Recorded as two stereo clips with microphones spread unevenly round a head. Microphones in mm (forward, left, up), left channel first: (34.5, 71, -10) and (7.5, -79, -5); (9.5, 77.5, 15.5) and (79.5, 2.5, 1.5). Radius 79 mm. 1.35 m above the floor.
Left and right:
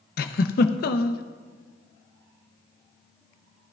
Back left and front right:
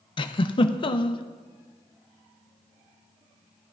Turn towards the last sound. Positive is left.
turn(degrees=105)